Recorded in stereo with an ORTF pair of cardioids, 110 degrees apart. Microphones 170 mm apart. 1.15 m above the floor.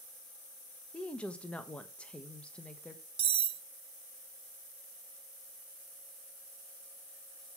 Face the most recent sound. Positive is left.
turn(degrees=-40)